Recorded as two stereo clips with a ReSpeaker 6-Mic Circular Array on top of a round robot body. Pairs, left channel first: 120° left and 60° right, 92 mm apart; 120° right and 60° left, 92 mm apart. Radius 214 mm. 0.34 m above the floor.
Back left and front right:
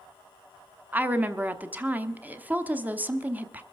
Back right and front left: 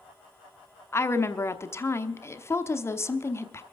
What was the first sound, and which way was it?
A woman speaking, 110° right.